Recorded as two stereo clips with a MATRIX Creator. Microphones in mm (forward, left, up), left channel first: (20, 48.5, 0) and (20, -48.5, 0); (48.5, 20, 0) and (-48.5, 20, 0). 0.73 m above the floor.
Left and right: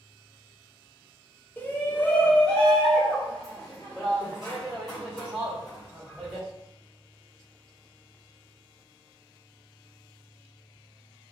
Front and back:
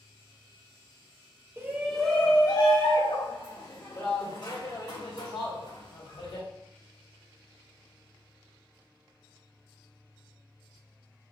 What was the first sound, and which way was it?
A shout, 140° left.